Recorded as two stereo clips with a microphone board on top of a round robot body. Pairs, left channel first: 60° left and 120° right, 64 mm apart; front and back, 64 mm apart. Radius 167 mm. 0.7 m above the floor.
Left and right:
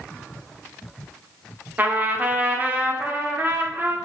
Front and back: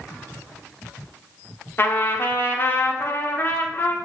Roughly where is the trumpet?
Ahead right.